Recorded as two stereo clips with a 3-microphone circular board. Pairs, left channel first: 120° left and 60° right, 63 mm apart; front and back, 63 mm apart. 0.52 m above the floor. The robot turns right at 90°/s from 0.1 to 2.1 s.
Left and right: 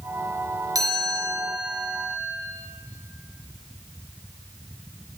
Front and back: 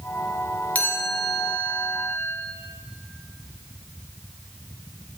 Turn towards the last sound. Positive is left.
turn(degrees=55)